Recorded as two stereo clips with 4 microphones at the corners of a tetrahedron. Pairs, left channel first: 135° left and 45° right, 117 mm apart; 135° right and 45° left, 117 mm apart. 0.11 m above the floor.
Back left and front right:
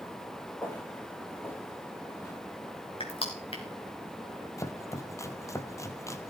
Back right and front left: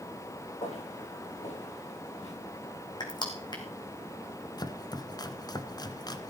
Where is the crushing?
175° left, 3.5 m.